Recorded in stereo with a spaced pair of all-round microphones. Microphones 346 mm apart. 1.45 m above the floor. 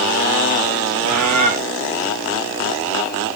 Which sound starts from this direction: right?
A bird, at 1.0 s.